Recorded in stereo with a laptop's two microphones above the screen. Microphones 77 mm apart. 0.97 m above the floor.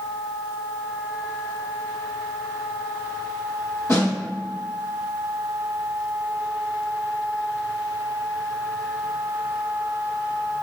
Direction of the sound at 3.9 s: 40° left (ahead or behind).